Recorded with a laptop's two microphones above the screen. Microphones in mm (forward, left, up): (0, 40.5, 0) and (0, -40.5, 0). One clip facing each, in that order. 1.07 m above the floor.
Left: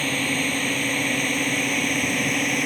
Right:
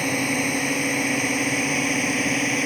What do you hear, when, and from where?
0.0 s a drone: 15° right (ahead or behind); by 2.7 s 5° right (ahead or behind)